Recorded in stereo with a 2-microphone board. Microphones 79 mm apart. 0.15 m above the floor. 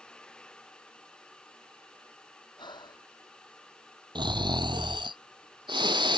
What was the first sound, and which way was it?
Breathing, 70° left (ahead or behind).